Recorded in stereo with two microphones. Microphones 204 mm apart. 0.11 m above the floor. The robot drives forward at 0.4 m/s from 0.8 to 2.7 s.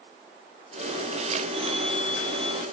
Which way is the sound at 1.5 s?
30° right (ahead or behind).